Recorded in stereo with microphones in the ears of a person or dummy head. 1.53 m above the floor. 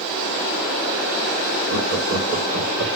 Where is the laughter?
55° right (ahead or behind), 2 m; by 2.9 s 70° right (ahead or behind), 1.4 m.